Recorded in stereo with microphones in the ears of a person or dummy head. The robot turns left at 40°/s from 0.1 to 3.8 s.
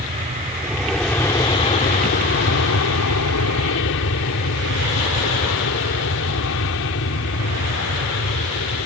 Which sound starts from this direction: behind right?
An aircraft, at 0.0 s.